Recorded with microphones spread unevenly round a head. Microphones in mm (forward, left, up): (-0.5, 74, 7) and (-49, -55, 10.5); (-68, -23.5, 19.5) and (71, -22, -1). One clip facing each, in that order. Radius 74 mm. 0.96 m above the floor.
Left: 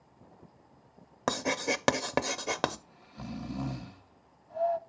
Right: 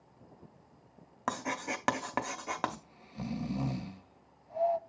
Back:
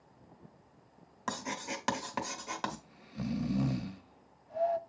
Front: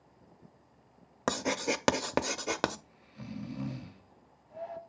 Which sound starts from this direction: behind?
Snoring, at 2.7 s.